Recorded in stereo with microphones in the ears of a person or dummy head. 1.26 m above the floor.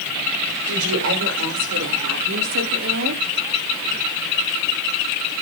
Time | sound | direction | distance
0.7 | a woman speaking | 70° right (ahead or behind) | 4.5 m